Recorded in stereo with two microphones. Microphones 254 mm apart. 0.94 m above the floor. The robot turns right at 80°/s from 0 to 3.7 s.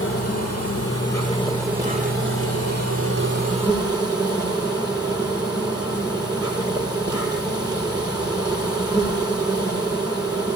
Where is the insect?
50° left, 5 m; by 10.6 s 15° right, 5 m.